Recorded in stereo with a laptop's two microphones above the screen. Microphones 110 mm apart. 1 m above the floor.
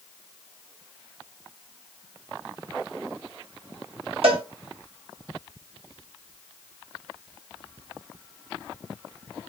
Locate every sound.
4.2 s a cowbell: 65° right (ahead or behind), 2.5 m